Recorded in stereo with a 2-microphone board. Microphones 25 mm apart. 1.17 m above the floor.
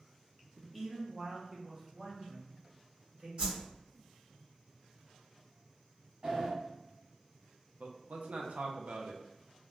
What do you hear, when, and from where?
0.6 s a man speaking: centre (ahead or behind), 0.8 m; by 3.3 s 50° right (ahead or behind), 2 m
3.4 s a whoosh: 50° right (ahead or behind), 1.9 m
6.2 s a sliding door: 50° right (ahead or behind), 1.6 m
7.8 s a man speaking: 75° right (ahead or behind), 0.5 m